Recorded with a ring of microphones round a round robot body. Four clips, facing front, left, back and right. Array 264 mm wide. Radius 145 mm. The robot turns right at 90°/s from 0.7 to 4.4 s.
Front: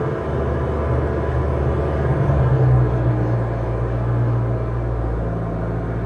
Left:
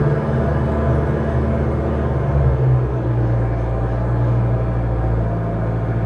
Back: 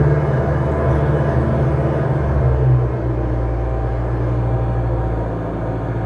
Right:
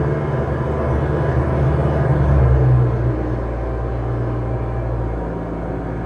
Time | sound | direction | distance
0.0 | an engine running | 155° left | 2.5 m